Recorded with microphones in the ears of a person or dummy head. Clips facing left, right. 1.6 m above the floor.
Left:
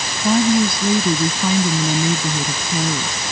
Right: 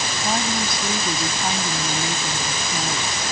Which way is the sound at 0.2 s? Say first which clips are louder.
Left 11 dB; 75° left (ahead or behind).